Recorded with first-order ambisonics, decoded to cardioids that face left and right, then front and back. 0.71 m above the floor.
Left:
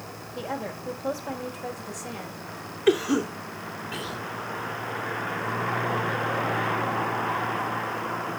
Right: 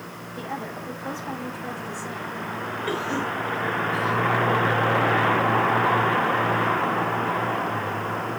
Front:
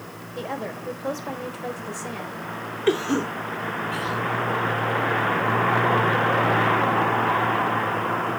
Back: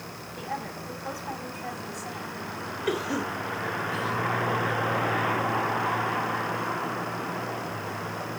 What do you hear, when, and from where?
0.3 s a woman speaking: 25° left, 4 m
2.9 s a cough: 45° left, 1.9 m